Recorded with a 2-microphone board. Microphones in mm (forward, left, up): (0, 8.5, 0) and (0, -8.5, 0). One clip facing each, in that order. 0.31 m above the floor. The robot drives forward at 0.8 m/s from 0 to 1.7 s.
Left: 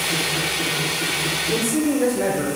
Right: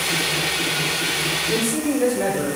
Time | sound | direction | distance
1.5 | a man speaking | 5° right (ahead or behind) | 0.9 m